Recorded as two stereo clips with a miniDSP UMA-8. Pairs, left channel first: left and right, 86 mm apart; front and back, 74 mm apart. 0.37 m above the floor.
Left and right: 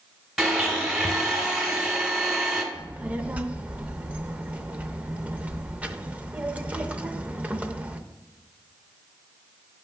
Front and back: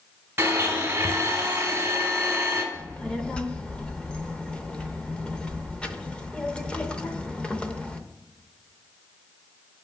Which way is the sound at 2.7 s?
45° right.